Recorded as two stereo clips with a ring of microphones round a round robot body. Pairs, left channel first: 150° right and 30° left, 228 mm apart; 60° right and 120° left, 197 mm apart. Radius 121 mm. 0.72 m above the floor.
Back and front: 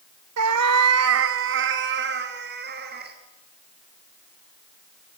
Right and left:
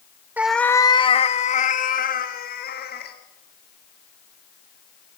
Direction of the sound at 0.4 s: 40° left.